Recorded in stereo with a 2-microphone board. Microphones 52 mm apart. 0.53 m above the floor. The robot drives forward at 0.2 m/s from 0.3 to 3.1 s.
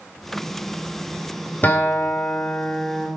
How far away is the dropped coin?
No dropped coin in this recording.